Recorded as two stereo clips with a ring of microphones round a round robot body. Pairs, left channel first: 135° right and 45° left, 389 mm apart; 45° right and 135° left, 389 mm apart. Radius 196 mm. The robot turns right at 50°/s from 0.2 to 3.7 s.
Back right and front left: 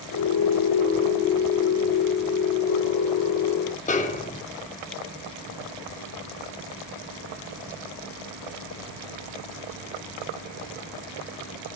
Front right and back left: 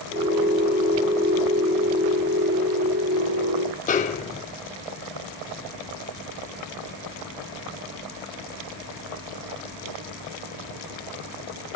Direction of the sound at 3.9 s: 90° right.